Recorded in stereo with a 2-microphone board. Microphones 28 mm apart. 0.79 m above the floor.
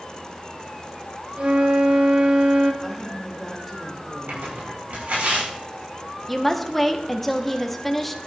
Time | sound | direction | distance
1.4 | a flute | 45° right (ahead or behind) | 1.1 m
2.8 | a woman speaking | 5° left (ahead or behind) | 2.5 m
4.3 | tearing paper | 70° right (ahead or behind) | 6 m
6.3 | a woman speaking | 5° left (ahead or behind) | 1.3 m